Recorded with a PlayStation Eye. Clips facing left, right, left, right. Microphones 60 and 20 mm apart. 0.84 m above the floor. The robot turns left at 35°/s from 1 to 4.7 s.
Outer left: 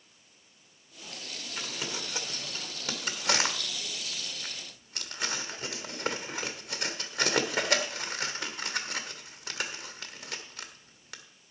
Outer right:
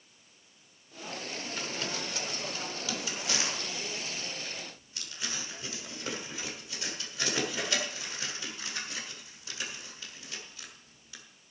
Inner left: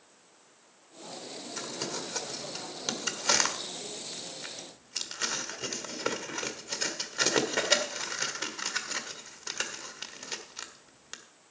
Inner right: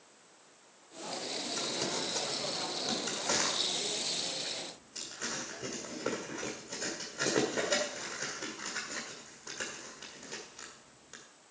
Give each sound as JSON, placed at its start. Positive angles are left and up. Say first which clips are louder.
{"t": 1.6, "sound": "crumpling", "louder": "even, even", "side_deg": 5, "distance_m": 1.3}